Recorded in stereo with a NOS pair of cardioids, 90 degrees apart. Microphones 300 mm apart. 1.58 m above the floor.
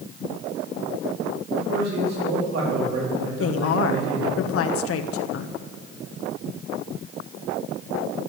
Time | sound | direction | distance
1.6 | a man speaking | 60° right | 4 m
3.4 | a woman speaking | 50° left | 1.1 m